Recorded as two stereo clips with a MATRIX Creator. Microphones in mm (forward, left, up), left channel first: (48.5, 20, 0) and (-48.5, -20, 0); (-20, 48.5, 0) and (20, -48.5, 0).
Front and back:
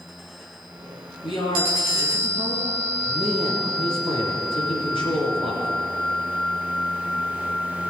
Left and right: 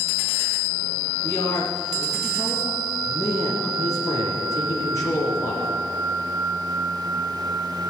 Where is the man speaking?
55° left, 4 m.